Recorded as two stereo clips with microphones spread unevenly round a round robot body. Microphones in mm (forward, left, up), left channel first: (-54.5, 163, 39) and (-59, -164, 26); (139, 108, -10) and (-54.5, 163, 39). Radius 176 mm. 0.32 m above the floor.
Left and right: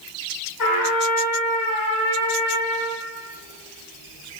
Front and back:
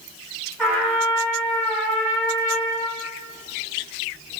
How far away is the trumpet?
About 3.5 m.